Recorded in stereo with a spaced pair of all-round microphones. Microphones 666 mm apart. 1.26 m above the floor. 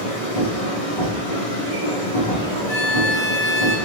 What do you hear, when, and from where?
0.0 s a machine running: 55° left (ahead or behind), 1.6 m
2.7 s a violin: 45° left (ahead or behind), 1.8 m